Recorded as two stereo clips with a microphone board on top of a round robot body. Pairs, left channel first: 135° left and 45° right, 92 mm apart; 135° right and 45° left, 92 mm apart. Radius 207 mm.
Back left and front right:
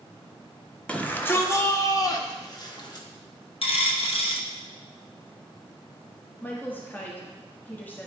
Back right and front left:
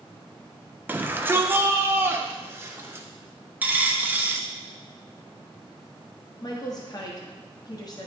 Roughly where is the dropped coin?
Behind left.